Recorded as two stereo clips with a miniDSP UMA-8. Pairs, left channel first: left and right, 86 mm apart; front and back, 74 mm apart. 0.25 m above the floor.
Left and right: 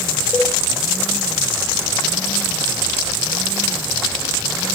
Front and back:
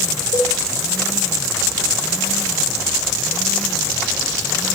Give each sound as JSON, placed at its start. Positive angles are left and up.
{"t": 0.3, "sound": "a cowbell", "azimuth_deg": -10, "distance_m": 4.0}